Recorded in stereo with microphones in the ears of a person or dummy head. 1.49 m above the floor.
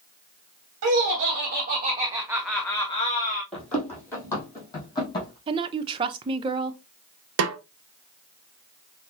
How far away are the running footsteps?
About 2.5 m.